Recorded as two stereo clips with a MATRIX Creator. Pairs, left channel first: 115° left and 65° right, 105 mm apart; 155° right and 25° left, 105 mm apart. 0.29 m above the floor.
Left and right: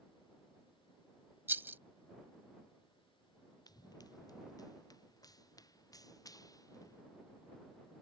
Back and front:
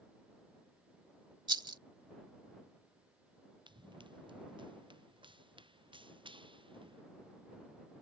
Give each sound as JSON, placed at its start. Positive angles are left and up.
{"t": 1.5, "sound": "a rattle", "azimuth_deg": -5}
{"t": 3.7, "sound": "running footsteps", "azimuth_deg": 60}